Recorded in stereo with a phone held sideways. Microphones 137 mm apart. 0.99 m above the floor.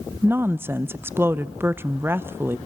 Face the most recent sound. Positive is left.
turn(degrees=-15)  # may be behind; listen again after turning